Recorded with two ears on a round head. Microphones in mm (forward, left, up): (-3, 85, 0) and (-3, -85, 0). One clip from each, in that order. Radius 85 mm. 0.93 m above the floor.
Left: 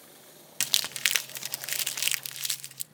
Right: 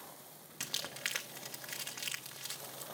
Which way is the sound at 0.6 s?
65° left (ahead or behind).